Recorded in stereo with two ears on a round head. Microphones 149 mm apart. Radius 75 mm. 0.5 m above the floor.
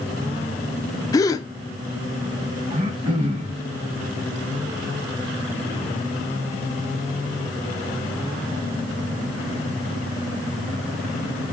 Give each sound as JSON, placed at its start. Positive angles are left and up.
{"t": 1.1, "sound": "a gasp", "side_deg": 20, "distance_m": 0.6}
{"t": 2.7, "sound": "throat clearing", "side_deg": -30, "distance_m": 2.5}